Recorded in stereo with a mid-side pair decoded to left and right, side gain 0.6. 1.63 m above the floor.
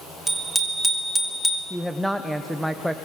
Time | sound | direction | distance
0.3 | a bicycle bell | 20° right | 3.5 m
1.7 | a woman speaking | 5° right | 1.1 m